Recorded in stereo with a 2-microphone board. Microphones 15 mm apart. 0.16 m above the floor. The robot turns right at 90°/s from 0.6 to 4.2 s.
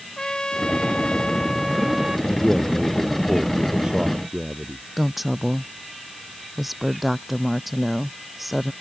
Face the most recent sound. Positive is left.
turn(degrees=-10)  # may be behind; listen again after turning